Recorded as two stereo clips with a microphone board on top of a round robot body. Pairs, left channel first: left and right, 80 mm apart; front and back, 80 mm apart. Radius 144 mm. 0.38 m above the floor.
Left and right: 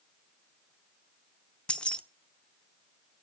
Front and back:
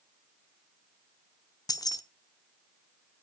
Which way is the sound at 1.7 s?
15° left.